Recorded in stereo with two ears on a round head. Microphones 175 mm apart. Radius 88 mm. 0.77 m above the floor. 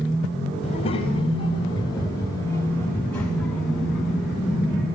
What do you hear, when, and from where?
0.6 s a child speaking: 30° left (ahead or behind), 3.5 m; by 4.9 s 5° right (ahead or behind), 4.5 m